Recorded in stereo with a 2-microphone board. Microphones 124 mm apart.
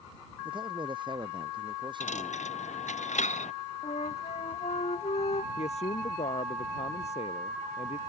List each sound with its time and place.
0.5 s a man speaking: 40° right (ahead or behind)
2.0 s a dropped coin: 80° left
3.8 s a flute: 65° left (ahead or behind)
5.6 s a man speaking: 65° left (ahead or behind)